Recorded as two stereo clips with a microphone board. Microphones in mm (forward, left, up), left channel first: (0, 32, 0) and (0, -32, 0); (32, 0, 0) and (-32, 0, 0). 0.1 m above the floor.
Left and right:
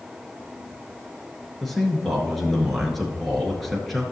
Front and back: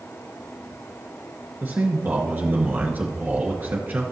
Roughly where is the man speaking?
Behind.